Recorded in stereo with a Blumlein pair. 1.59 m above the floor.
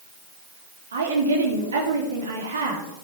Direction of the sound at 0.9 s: 70° right.